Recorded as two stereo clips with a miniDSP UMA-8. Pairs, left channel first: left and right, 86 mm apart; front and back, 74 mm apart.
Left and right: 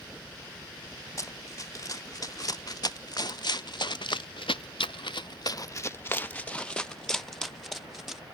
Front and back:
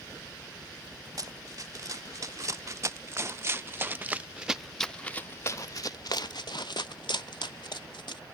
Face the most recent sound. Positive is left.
turn(degrees=-5)